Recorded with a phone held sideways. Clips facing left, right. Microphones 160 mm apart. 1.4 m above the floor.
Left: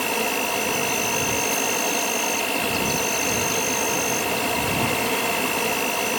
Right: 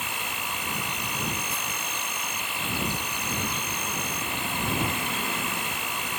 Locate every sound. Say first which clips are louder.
0.0 s an insect: left 12 dB; 80° left